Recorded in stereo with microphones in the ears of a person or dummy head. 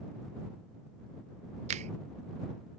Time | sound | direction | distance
1.7 | a finger snap | 35° right (ahead or behind) | ?